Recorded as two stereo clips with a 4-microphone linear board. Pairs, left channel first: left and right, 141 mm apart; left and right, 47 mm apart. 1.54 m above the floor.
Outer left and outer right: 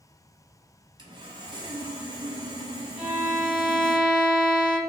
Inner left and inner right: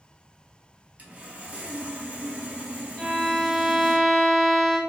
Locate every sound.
1.0 s sawing: 35° right (ahead or behind), 0.5 m
3.0 s a violin: 5° left (ahead or behind), 1.4 m